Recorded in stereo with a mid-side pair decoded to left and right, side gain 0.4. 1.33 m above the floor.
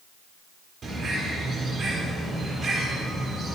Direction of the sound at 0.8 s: 50° right.